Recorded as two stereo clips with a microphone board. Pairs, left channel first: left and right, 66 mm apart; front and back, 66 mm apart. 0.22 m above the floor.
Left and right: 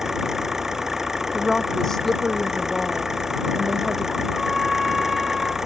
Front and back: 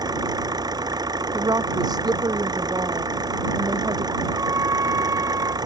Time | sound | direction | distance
0.0 | an engine running | 175° right | ?
1.3 | a woman speaking | 175° left | ?
4.3 | a trumpet | straight behind | ?